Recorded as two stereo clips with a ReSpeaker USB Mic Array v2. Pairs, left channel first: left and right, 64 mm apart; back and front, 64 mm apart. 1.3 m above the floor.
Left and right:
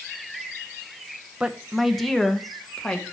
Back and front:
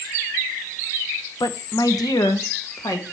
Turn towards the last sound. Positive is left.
turn(degrees=165)